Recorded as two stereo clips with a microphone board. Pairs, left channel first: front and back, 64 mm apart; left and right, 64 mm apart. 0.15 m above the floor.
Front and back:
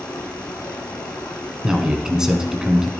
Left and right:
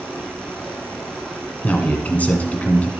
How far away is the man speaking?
About 1.3 m.